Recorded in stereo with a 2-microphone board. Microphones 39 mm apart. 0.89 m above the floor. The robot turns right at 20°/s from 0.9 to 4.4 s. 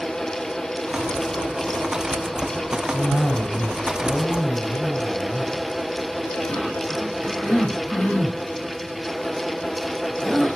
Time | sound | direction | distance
2.9 | a cough | 55° left (ahead or behind) | 4 m